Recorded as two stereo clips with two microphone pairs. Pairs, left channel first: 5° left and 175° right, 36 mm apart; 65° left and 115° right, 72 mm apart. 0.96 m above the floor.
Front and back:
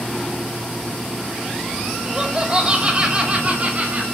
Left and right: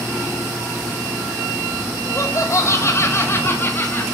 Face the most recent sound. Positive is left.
turn(degrees=130)